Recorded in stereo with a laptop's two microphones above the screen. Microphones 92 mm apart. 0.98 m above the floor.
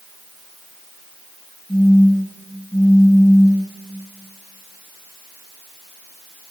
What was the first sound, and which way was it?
A phone buzzing, 20° left (ahead or behind).